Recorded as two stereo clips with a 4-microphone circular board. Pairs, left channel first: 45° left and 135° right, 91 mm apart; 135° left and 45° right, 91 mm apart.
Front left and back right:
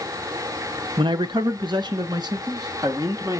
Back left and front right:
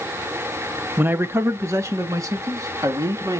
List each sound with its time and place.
1.0 s a man speaking: 115° right, 0.9 m; by 3.4 s 90° right, 2.5 m